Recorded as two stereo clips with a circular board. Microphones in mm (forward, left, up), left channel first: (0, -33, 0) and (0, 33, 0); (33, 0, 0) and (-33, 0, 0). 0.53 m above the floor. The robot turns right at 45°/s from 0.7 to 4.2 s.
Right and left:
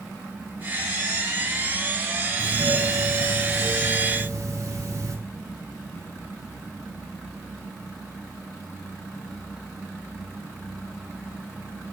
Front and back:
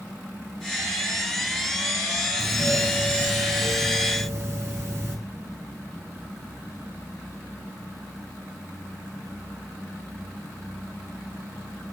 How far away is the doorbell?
About 5.5 m.